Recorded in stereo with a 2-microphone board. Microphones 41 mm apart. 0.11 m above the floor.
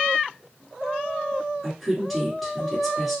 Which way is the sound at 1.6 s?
5° left (ahead or behind).